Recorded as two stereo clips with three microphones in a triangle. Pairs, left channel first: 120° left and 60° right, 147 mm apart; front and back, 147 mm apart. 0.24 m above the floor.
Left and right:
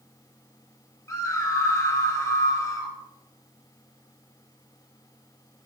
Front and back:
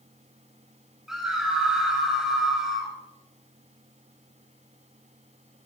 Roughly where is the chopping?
I don't hear chopping.